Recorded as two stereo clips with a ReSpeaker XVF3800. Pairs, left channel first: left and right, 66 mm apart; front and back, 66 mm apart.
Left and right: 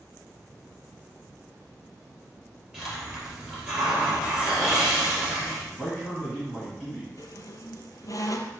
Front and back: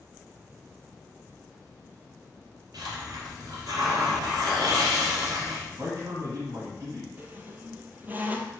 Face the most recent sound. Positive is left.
turn(degrees=120)